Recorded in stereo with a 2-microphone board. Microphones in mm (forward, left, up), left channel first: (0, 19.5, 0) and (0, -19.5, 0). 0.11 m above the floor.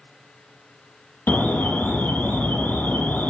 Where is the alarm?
55° left (ahead or behind), 4 m.